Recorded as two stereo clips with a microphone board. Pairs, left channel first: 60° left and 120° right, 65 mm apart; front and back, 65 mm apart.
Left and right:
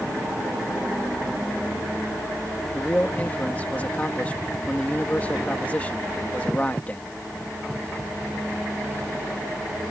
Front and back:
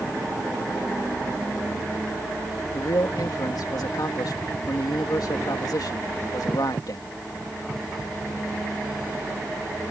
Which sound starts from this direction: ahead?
A man speaking, at 2.7 s.